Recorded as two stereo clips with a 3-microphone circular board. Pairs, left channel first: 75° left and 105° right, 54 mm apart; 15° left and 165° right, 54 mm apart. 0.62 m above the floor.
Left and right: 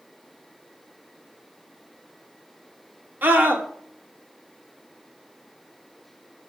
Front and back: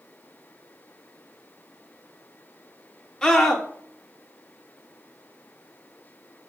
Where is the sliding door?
No sliding door in this recording.